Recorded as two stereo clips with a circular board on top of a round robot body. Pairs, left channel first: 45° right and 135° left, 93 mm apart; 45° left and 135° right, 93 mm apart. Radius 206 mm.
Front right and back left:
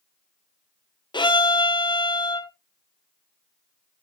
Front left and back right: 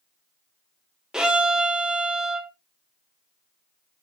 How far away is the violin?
About 2.0 m.